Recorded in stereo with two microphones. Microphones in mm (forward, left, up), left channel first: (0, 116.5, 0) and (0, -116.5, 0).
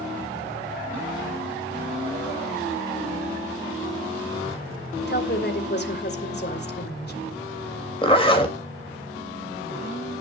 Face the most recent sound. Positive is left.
turn(degrees=25)  # may be behind; listen again after turning